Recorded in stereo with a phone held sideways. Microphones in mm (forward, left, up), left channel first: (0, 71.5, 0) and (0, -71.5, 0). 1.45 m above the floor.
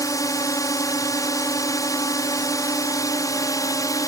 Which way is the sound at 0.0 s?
20° left (ahead or behind).